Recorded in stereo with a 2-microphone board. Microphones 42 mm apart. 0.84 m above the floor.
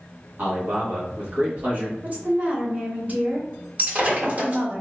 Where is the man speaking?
45° right (ahead or behind), 1.4 m.